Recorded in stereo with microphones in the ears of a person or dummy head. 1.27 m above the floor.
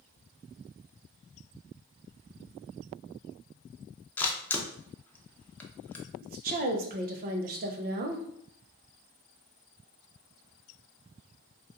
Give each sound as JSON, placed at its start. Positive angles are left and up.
{"t": 4.2, "sound": "a camera shutter", "side_deg": 10, "distance_m": 0.5}
{"t": 6.2, "sound": "a woman speaking", "side_deg": -45, "distance_m": 0.6}